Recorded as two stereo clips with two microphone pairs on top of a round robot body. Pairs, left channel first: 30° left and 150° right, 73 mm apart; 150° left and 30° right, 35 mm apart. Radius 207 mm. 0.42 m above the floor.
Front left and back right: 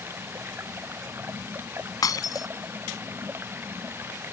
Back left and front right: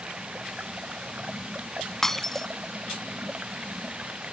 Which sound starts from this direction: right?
Running water, at 0.0 s.